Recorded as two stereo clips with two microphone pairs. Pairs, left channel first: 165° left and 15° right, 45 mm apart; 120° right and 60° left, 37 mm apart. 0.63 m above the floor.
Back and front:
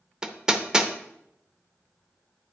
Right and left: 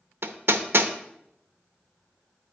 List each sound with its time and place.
0.2 s hammering: 65° left, 0.6 m